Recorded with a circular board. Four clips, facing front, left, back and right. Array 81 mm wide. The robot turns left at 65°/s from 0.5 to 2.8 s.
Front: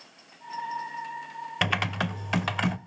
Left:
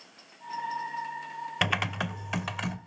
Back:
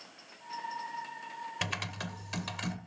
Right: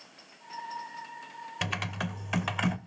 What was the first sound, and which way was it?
Typing on a keyboard, 45° left.